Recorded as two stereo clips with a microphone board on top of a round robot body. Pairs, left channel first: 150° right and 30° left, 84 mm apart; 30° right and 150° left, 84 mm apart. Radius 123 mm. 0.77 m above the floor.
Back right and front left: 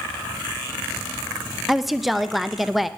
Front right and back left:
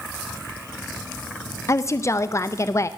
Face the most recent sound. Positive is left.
turn(degrees=-60)